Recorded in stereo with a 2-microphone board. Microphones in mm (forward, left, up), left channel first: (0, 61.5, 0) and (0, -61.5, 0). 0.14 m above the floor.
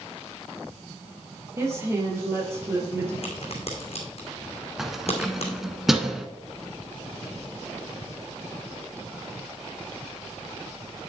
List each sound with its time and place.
1.6 s a woman speaking: 20° right (ahead or behind), 4 m
3.2 s a crack: 55° left (ahead or behind), 3 m
4.8 s keys jangling: centre (ahead or behind), 1.0 m